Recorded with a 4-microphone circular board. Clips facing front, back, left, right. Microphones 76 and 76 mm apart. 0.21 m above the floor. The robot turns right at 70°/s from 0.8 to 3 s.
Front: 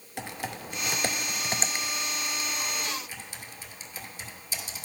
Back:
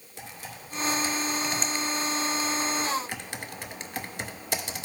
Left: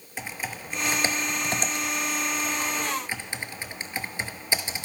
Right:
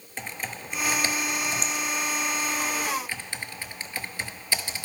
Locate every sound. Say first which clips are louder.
0.2 s typing on a keyboard: front 6 dB, left 1 dB; 5° left, 0.6 m; by 4.9 s 160° left, 0.6 m